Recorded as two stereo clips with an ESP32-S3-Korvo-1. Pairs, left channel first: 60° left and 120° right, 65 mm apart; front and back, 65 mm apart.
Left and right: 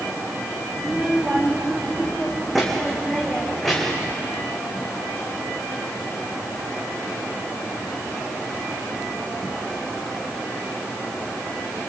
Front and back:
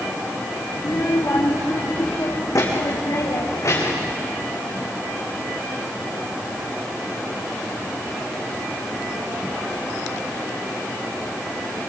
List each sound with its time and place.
0.8 s a child speaking: 40° right, 3.5 m; by 4.1 s 25° right, 5.5 m